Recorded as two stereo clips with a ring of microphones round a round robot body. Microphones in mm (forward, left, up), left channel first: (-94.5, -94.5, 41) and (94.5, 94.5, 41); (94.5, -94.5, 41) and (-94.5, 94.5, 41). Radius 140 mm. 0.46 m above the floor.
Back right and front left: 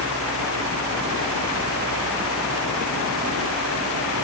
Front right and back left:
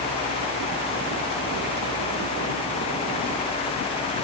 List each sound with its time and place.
Only background noise.